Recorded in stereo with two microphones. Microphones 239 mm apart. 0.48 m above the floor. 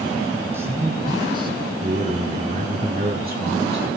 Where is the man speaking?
10° right (ahead or behind), 6.5 m; by 3.9 s 45° right (ahead or behind), 7 m.